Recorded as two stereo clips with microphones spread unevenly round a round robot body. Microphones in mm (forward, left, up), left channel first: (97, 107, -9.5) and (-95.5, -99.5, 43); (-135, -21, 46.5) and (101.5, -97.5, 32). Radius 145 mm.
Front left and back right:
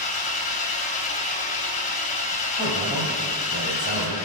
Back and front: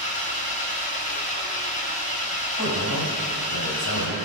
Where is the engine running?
100° left, 1.2 m.